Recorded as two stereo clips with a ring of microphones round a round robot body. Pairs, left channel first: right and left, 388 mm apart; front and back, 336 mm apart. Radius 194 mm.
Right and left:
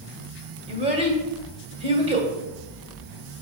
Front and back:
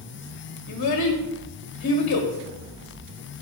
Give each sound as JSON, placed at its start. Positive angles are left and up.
{"t": 0.7, "sound": "a child speaking", "azimuth_deg": 25, "distance_m": 1.5}